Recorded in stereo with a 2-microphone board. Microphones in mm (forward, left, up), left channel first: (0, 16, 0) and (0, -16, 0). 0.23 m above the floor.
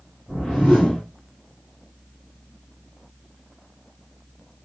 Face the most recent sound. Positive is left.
turn(degrees=30)  # may be behind; listen again after turning